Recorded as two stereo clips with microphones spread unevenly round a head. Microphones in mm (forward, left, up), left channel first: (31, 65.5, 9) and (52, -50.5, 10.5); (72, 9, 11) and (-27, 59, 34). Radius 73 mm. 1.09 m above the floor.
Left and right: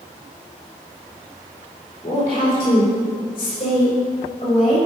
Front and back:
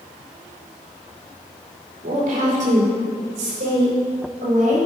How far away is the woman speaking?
About 4 m.